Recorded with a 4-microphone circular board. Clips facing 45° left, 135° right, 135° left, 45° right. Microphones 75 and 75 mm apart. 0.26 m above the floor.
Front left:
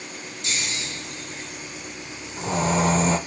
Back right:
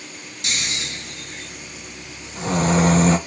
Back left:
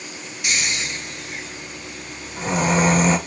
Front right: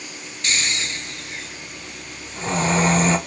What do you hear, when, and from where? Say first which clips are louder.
0.4 s snoring: back right 2 dB, even; 150° right, 0.7 m